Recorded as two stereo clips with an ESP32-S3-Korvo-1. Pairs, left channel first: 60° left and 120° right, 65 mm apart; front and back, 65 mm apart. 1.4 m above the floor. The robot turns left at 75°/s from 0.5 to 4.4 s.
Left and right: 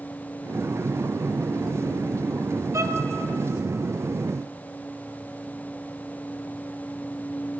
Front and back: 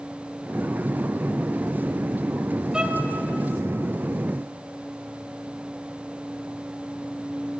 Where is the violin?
105° right, 1.7 m; by 3.0 s 130° right, 1.7 m.